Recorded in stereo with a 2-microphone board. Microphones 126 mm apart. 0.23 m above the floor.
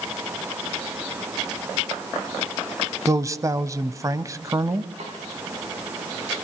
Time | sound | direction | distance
3.1 | a man speaking | 25° right (ahead or behind) | 1.0 m
5.0 | a snare drum | 60° right (ahead or behind) | 7.5 m